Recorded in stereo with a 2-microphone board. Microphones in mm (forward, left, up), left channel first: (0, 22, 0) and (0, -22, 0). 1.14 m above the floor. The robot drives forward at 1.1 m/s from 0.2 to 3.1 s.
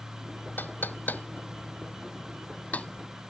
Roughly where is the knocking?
Left.